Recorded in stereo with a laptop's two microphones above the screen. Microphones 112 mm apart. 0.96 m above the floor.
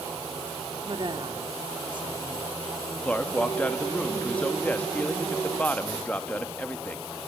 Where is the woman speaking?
45° right (ahead or behind), 2 m.